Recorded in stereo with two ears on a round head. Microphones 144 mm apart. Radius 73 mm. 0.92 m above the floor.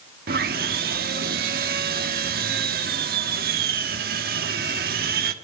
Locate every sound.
0.3 s sawing: 60° right (ahead or behind), 1.2 m